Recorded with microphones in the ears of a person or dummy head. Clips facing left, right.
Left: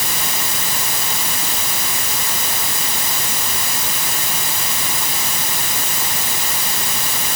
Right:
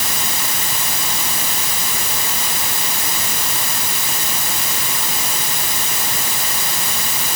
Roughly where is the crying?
No crying in this recording.